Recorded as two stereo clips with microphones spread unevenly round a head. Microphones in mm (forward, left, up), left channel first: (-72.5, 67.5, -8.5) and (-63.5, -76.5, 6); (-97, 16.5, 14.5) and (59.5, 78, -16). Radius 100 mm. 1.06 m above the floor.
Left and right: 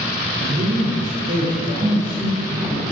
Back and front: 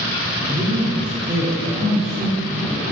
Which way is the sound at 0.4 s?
45° right.